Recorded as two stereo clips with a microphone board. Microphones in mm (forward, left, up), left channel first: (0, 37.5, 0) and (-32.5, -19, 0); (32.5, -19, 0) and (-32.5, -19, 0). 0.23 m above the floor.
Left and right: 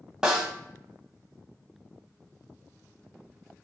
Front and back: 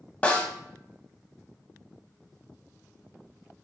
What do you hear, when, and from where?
0.2 s a snare drum: 50° right, 0.8 m